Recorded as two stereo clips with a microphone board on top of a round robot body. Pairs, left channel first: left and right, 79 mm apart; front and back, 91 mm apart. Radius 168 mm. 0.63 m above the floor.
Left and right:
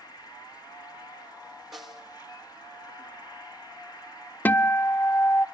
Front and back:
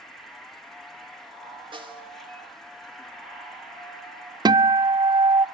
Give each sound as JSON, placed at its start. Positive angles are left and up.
{"t": 0.0, "sound": "an insect", "azimuth_deg": 85, "distance_m": 3.5}
{"t": 1.7, "sound": "a snare drum", "azimuth_deg": -175, "distance_m": 2.5}
{"t": 4.5, "sound": "a guitar", "azimuth_deg": 155, "distance_m": 0.6}